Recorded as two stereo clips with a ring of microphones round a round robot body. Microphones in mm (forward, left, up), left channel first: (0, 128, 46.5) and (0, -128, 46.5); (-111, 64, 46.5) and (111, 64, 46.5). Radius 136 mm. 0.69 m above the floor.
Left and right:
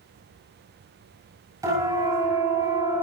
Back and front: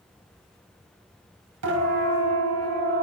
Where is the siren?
10° right, 9.5 m.